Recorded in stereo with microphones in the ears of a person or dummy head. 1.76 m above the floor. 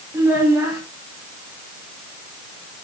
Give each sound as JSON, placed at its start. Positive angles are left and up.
{"t": 0.1, "sound": "a child speaking", "side_deg": -15, "distance_m": 2.5}